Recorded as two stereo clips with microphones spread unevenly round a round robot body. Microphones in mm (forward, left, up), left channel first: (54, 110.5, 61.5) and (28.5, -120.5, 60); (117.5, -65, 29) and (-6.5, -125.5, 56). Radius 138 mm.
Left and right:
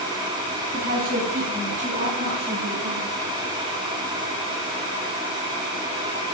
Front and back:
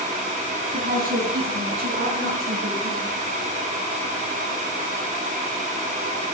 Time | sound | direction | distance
0.7 | a woman speaking | 150° right | 4.5 m